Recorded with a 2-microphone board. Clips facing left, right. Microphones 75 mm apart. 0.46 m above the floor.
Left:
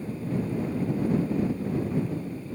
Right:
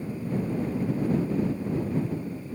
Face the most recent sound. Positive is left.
No sound to turn to.